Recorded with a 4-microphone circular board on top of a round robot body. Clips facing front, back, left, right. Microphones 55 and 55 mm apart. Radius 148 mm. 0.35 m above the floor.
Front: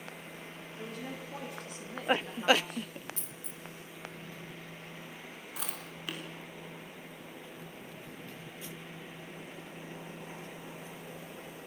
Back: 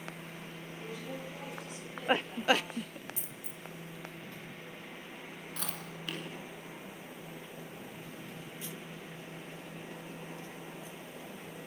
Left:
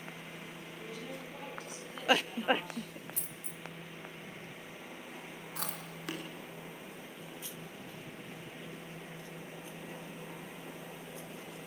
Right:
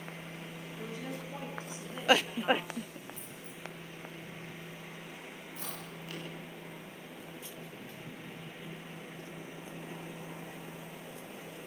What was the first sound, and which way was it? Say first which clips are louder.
A woman speaking: front 1 dB, right 3 dB; 35° right.